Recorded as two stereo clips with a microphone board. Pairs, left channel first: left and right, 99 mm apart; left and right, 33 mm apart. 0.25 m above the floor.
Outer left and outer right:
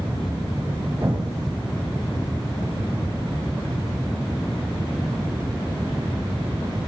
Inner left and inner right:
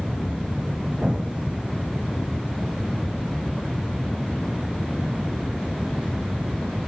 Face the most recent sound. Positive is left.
turn(degrees=-35)  # may be behind; listen again after turning